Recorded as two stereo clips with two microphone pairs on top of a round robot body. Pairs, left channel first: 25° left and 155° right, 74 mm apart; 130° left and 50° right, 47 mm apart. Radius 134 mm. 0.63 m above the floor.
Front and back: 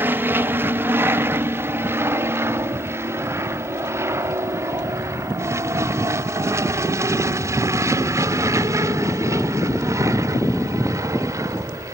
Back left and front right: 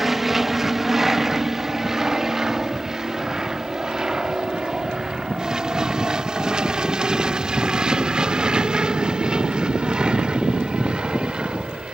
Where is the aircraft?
125° right; by 11.9 s 115° right.